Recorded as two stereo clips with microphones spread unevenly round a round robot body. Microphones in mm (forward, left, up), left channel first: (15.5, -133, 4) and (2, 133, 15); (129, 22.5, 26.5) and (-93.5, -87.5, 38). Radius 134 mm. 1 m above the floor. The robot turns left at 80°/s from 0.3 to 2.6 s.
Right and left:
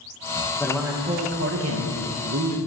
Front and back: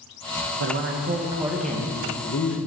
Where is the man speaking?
165° right, 1.1 m; by 2.6 s 40° left, 1.1 m.